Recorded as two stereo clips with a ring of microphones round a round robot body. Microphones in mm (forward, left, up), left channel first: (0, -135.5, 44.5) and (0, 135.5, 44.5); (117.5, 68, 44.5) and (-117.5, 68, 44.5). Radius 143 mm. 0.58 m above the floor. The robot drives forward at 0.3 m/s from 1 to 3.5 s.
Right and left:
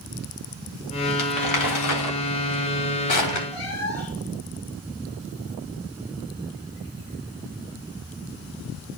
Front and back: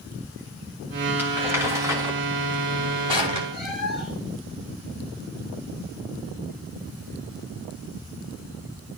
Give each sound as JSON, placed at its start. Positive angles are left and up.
{"t": 1.2, "sound": "crumpling", "azimuth_deg": -100, "distance_m": 2.5}
{"t": 3.5, "sound": "a cat meowing", "azimuth_deg": -90, "distance_m": 3.5}